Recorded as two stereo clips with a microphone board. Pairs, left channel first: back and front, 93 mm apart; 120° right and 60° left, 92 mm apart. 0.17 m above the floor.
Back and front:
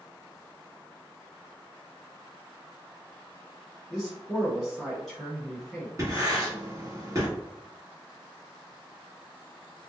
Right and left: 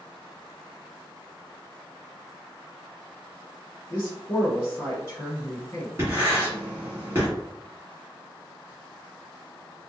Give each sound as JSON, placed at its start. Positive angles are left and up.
{"t": 3.9, "sound": "a man speaking", "azimuth_deg": -100, "distance_m": 1.4}
{"t": 6.0, "sound": "writing", "azimuth_deg": 15, "distance_m": 1.8}